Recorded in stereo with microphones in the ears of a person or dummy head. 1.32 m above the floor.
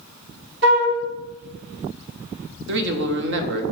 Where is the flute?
70° right (ahead or behind), 2.5 m.